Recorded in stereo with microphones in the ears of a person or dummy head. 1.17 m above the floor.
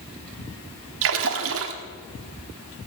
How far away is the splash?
About 1.4 m.